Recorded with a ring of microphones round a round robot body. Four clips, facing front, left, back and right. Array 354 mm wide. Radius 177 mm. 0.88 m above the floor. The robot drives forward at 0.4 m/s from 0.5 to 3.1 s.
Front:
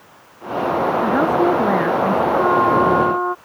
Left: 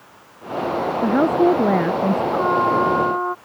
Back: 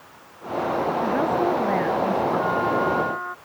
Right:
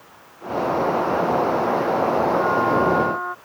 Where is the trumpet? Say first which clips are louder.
Left 1 dB, front 7 dB; 25° left.